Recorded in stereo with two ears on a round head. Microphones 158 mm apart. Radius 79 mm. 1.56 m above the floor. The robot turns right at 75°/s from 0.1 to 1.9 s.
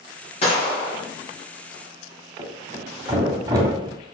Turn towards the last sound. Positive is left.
turn(degrees=-20)  # may be behind; listen again after turning